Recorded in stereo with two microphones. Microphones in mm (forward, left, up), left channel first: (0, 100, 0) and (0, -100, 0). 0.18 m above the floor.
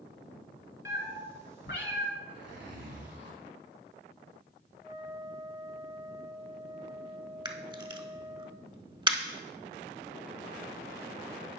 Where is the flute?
30° right (ahead or behind), 2.5 m.